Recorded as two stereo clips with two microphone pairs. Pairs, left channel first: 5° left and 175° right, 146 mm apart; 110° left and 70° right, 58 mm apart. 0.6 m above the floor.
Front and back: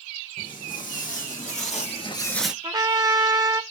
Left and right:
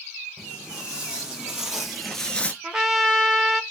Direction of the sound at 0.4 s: Straight ahead.